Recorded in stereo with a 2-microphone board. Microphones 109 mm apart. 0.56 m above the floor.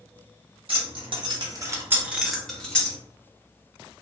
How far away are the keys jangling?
About 0.9 m.